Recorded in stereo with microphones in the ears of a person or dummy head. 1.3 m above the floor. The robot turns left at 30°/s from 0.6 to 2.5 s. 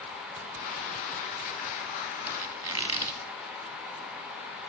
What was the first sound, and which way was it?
A squeak, 5° right (ahead or behind).